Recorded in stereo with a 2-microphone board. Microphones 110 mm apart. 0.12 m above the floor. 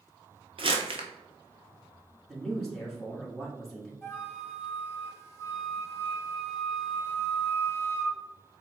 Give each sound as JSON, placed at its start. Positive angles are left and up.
{"t": 0.6, "sound": "crumpling", "side_deg": -55, "distance_m": 0.8}
{"t": 2.3, "sound": "a man speaking", "side_deg": 5, "distance_m": 1.5}
{"t": 4.0, "sound": "a flute", "side_deg": 25, "distance_m": 1.3}